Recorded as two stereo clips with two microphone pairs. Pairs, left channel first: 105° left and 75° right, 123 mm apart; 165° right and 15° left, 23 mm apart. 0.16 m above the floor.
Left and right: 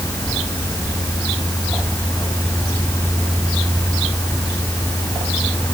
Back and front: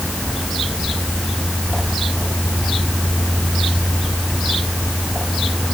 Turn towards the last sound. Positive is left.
No sound to turn to.